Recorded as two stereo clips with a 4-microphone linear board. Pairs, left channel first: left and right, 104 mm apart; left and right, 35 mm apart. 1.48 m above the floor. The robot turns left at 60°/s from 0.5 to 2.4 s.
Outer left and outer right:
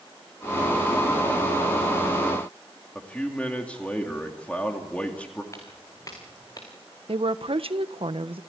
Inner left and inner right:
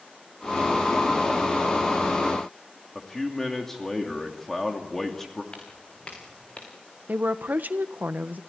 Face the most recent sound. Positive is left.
turn(degrees=-60)  # may be behind; listen again after turning